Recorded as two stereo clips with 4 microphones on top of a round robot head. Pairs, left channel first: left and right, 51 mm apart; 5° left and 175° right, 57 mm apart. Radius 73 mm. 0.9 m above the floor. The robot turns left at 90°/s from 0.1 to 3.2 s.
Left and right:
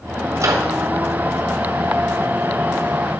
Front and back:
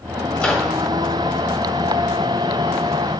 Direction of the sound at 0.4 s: 60° right.